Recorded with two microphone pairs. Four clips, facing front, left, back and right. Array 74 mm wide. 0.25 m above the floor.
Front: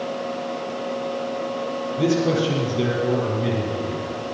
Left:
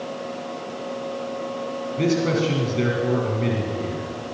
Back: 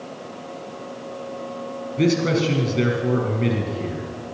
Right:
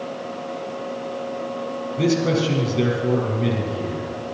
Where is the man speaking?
150° left, 5 m.